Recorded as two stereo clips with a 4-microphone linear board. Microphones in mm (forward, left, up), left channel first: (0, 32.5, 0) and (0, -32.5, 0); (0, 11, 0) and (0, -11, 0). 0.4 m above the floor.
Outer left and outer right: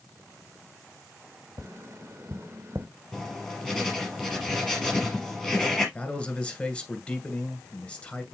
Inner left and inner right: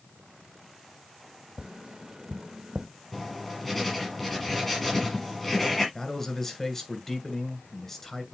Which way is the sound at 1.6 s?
45° right (ahead or behind).